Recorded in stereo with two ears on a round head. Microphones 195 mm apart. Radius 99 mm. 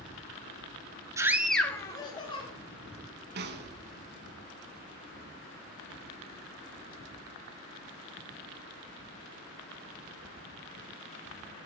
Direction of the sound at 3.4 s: 50° right (ahead or behind).